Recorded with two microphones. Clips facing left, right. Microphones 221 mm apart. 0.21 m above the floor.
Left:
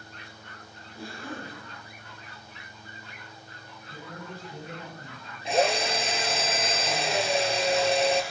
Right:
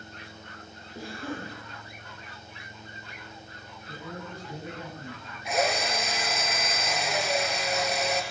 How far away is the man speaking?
About 5 m.